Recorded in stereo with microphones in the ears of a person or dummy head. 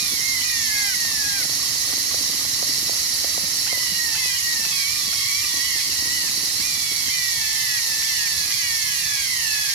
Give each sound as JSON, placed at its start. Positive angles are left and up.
{"t": 0.0, "sound": "running water", "side_deg": -65, "distance_m": 2.5}